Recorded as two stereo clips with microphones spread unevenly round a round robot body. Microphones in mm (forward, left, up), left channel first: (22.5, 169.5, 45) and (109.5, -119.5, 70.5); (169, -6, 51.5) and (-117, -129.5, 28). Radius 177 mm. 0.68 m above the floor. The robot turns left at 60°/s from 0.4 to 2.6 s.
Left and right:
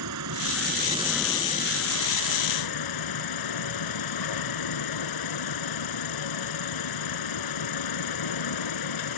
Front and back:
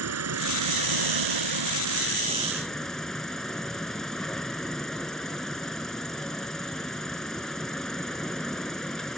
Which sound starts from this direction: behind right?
An insect, at 0.0 s.